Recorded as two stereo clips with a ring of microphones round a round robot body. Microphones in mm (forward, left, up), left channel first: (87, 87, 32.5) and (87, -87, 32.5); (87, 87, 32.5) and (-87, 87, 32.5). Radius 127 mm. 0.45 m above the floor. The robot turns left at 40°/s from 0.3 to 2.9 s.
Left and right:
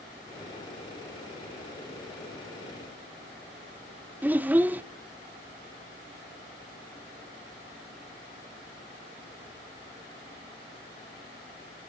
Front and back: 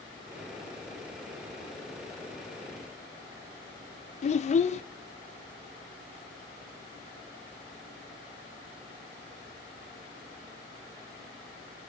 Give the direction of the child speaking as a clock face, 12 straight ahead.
12 o'clock.